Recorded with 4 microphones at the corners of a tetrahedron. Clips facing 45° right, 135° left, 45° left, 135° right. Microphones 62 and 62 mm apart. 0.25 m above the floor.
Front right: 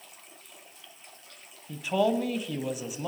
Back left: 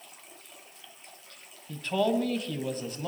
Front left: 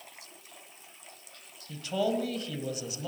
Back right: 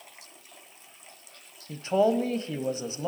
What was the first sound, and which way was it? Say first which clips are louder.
A man speaking: front right 1 dB, back right 6 dB; 120° right.